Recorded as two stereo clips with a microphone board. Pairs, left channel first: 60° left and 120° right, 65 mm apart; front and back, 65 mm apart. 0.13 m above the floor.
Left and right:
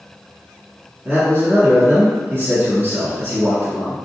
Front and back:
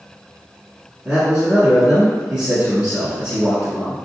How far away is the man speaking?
About 1.2 m.